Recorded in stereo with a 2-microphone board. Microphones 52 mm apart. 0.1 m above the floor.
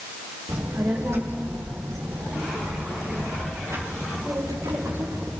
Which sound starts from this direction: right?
A child speaking, at 0.5 s.